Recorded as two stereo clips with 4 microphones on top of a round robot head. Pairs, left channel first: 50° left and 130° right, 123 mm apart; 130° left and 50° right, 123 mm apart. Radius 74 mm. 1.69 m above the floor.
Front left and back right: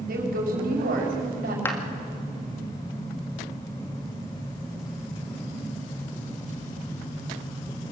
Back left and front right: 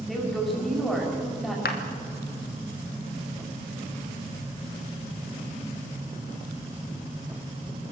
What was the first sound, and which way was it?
A woman speaking, 140° right.